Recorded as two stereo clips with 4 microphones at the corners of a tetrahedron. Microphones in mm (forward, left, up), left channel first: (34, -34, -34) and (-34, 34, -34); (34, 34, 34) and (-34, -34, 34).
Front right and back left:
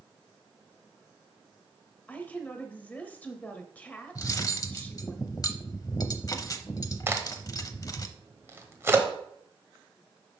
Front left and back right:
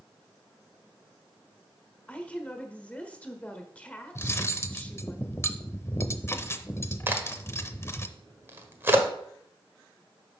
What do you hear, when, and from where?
2.1 s a woman speaking: 5° right, 1.1 m
4.2 s cutlery clinking: 10° right, 0.6 m
7.1 s a crack: 175° left, 1.2 m